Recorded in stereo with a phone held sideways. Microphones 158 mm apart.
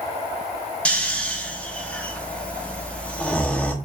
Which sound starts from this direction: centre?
Snoring, at 0.8 s.